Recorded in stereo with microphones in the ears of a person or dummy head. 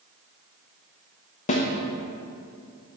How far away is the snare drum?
About 0.7 m.